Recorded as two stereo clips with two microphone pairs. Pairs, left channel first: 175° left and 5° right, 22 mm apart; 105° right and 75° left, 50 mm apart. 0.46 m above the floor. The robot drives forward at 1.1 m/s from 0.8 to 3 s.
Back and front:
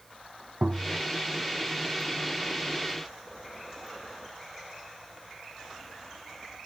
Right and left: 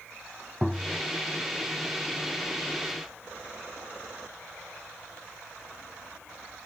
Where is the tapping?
15° right; by 1.0 s 20° right.